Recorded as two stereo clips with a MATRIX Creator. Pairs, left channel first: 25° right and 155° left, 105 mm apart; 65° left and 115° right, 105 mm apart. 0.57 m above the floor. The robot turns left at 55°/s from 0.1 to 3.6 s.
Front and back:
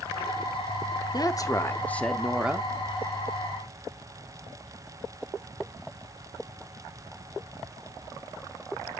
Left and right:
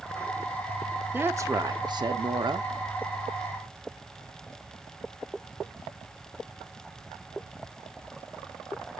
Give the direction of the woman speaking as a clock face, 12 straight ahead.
2 o'clock.